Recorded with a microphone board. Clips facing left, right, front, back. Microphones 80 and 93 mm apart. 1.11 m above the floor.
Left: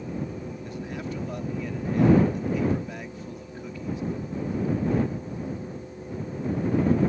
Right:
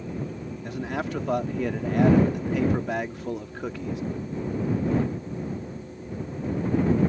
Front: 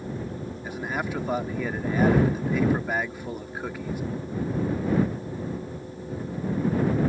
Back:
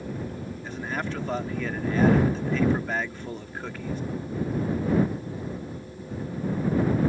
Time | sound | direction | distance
0.6 | a man speaking | 80° right | ?